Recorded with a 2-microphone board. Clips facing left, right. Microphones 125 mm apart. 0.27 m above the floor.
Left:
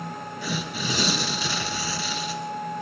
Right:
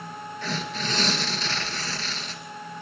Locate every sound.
0.4 s tearing paper: 10° left (ahead or behind), 2 m